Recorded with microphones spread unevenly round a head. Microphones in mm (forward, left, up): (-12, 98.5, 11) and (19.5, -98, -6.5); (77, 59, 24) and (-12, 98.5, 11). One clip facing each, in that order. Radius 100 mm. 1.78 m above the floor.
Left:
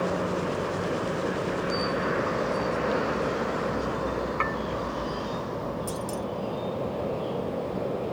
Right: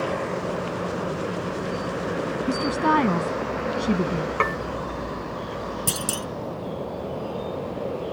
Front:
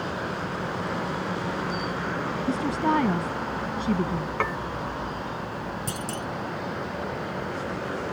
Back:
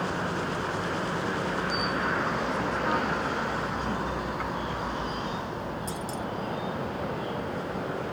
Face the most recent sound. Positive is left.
turn(degrees=-85)